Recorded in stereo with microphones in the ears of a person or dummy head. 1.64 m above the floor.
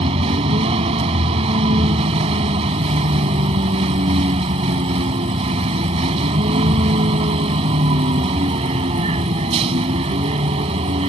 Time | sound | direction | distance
0.0 | a vehicle | 35° right (ahead or behind) | ?